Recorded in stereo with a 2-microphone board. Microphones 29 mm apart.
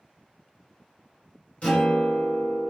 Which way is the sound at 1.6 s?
45° left (ahead or behind).